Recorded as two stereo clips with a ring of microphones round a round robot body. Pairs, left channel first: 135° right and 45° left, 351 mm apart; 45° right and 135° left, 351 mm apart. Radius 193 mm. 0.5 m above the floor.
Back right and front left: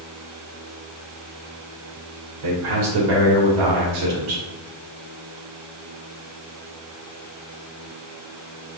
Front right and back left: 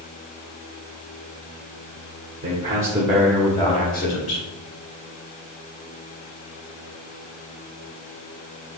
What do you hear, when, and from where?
2.4 s a man speaking: 75° left, 2.5 m; by 4.5 s 5° right, 1.9 m